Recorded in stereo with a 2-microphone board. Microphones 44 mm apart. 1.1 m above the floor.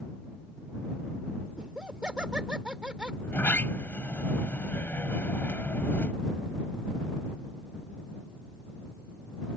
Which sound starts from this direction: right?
Laughter, at 1.6 s.